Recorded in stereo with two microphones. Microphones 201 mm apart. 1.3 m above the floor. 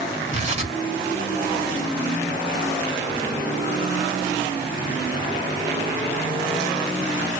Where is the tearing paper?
35° right (ahead or behind), 1.5 m.